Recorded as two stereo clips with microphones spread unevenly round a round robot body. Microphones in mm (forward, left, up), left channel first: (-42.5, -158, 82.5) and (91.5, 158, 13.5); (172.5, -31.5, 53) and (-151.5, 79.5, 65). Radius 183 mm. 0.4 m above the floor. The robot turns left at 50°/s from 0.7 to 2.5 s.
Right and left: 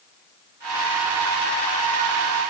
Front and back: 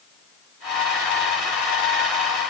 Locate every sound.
Only background noise.